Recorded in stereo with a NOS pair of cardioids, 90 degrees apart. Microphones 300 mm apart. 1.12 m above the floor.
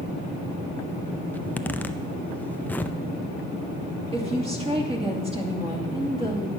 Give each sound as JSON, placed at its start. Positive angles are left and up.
{"t": 1.3, "sound": "a zipper", "azimuth_deg": 5, "distance_m": 0.5}
{"t": 4.1, "sound": "a woman speaking", "azimuth_deg": -20, "distance_m": 2.5}